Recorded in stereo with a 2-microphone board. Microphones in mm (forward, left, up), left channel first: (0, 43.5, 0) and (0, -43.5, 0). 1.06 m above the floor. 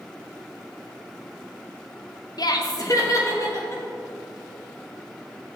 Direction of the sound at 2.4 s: 55° left (ahead or behind).